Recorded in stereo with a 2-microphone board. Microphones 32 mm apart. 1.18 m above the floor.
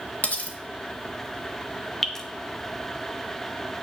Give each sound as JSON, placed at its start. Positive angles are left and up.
{"t": 0.2, "sound": "cutlery clinking", "side_deg": 45, "distance_m": 1.1}
{"t": 2.0, "sound": "dripping", "side_deg": 10, "distance_m": 0.9}